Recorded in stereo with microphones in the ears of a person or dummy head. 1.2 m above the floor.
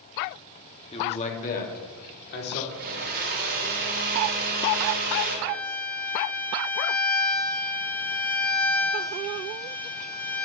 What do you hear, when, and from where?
0.9 s a man speaking: 30° left (ahead or behind), 3 m; by 2.6 s 60° left (ahead or behind), 4.5 m
2.7 s a blender: 50° right (ahead or behind), 4 m
5.5 s a violin: 10° left (ahead or behind), 1.8 m